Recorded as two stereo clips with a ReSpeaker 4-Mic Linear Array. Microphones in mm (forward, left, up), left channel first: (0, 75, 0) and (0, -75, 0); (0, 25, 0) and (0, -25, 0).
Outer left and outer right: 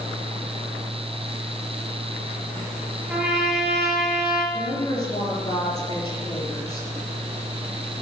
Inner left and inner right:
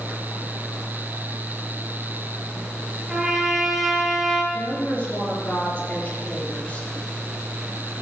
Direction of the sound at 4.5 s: 25° left (ahead or behind).